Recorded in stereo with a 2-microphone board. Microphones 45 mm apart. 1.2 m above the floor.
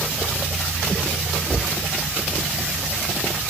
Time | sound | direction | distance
1.5 | a cupboard door | 25° left (ahead or behind) | 2 m